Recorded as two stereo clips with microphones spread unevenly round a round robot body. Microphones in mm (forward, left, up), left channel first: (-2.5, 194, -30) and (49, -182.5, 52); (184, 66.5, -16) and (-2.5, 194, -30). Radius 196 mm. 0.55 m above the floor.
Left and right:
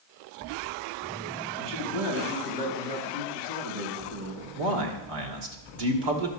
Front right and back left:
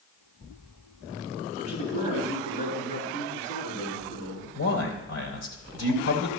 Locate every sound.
1.6 s a man speaking: 90° right, 4 m
4.5 s a man speaking: 60° right, 2.5 m